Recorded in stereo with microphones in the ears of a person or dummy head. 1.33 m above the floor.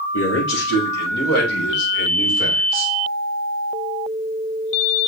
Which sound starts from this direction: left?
A man speaking, at 0.1 s.